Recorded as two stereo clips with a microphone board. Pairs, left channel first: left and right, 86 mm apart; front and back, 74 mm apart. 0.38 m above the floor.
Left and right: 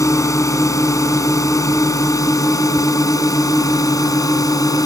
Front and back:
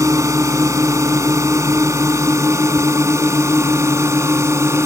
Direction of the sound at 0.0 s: 140° left.